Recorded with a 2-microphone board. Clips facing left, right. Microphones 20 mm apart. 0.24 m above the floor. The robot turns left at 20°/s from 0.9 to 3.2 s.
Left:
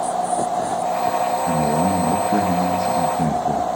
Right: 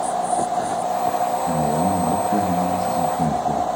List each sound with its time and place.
1.4 s a man speaking: 80° left, 3 m; by 3.8 s 45° left, 3 m